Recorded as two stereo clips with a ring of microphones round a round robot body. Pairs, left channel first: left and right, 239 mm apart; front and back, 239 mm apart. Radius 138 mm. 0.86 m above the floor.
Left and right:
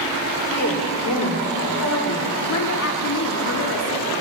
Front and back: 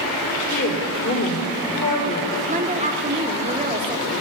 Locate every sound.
0.5 s a woman speaking: 50° left, 3 m
2.5 s a woman speaking: 120° left, 1.9 m